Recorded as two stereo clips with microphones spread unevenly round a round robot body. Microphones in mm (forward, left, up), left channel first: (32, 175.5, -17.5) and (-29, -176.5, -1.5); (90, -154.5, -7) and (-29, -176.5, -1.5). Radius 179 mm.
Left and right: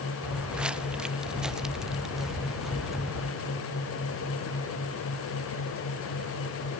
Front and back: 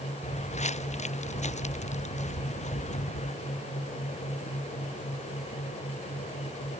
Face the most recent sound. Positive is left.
turn(degrees=-10)